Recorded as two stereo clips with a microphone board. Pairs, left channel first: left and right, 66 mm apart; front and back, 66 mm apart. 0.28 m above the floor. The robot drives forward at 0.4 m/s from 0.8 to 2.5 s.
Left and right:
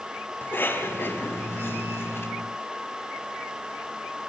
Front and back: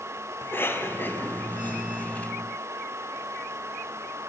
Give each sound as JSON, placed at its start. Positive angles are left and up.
{"t": 0.4, "sound": "a cough", "azimuth_deg": 45, "distance_m": 2.0}